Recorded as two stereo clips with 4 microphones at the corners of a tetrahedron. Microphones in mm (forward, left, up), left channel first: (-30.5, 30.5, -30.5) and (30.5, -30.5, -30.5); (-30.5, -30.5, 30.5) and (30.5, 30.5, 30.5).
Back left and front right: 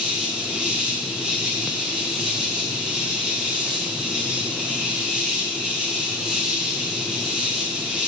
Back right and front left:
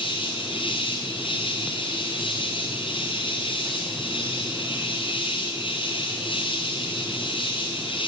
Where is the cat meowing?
No cat meowing in this recording.